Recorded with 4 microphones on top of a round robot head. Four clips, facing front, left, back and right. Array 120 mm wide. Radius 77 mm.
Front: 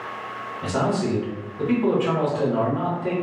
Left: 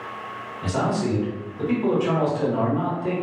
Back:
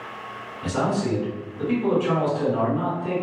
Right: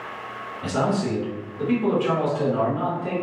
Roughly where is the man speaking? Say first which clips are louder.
Even, front 1 dB; ahead left.